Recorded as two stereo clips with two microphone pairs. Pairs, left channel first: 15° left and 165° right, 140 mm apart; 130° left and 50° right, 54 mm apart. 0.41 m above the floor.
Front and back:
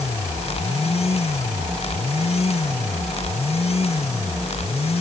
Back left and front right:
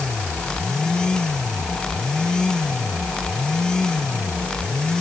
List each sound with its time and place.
Only background noise.